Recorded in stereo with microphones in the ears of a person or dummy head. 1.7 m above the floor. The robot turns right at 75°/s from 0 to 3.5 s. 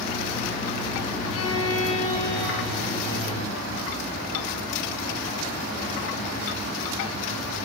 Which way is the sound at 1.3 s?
75° left.